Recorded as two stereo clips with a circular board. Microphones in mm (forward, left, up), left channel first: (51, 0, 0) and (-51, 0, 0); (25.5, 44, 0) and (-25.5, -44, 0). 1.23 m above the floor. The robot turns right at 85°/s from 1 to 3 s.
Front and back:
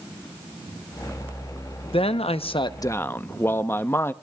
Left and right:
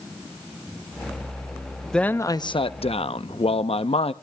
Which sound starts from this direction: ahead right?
A man speaking, at 1.9 s.